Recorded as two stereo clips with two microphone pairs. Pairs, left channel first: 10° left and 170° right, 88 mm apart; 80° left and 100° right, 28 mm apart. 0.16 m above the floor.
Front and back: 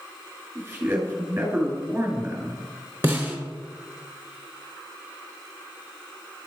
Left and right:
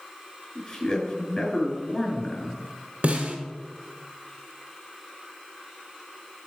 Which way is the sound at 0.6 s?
135° left.